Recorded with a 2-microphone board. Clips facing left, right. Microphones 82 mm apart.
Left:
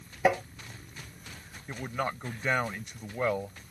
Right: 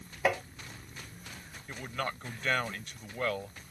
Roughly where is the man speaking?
Centre.